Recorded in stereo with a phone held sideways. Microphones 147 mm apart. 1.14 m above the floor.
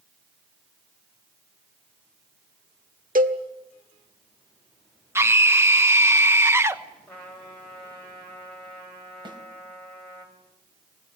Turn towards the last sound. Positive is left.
turn(degrees=-30)  # may be behind; listen again after turning